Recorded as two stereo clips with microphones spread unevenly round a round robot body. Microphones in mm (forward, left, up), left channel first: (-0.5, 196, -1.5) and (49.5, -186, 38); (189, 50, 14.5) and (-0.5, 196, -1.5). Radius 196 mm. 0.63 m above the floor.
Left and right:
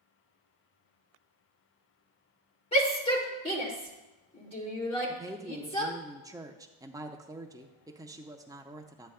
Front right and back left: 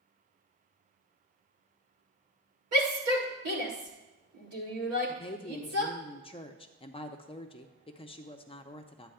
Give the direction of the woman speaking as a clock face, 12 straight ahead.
12 o'clock.